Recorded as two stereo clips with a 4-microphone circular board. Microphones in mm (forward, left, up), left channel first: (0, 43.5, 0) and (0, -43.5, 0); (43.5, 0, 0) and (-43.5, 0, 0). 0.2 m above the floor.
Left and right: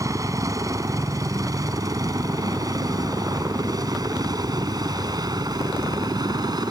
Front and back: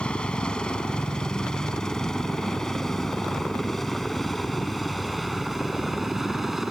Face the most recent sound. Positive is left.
turn(degrees=-95)